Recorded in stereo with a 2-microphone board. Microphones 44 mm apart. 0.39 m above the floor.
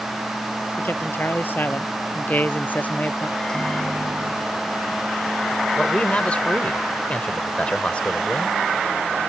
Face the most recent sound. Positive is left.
turn(degrees=30)  # may be behind; listen again after turning